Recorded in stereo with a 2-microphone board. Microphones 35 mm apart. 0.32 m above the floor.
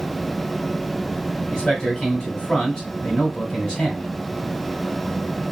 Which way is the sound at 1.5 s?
10° left (ahead or behind).